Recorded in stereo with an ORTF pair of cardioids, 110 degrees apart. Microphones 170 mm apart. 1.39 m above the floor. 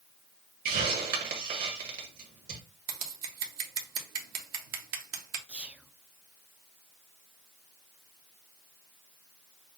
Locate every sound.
0.7 s a hiss: 60° right, 1.7 m
2.9 s scissors: 65° right, 1.2 m
5.5 s whispering: 5° right, 0.5 m